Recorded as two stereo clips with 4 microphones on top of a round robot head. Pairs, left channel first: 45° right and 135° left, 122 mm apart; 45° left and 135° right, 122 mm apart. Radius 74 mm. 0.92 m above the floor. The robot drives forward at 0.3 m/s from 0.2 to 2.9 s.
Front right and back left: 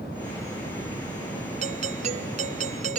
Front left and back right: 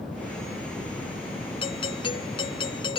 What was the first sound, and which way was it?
A doorbell, 100° left.